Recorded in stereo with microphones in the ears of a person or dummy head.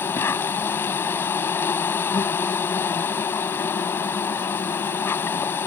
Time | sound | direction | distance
0.0 | an insect | 10° left (ahead or behind) | ?